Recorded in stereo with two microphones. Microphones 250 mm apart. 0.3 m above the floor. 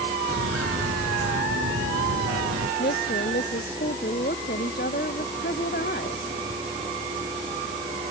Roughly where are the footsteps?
Right.